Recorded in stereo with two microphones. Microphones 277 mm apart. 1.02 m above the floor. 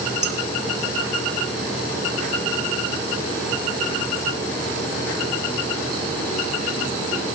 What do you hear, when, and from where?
0.2 s dishes clattering: 60° right (ahead or behind), 1.1 m